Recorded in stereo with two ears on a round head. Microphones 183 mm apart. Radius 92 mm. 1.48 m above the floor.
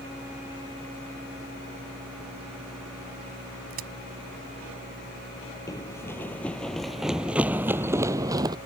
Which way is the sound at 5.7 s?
20° left (ahead or behind).